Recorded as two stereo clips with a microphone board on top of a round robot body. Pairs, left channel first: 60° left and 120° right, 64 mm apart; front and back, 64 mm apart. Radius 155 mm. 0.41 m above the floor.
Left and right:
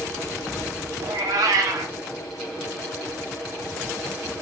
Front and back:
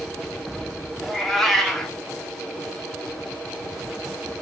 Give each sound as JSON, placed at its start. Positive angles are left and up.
{"t": 1.0, "sound": "a cat meowing", "azimuth_deg": -85, "distance_m": 0.6}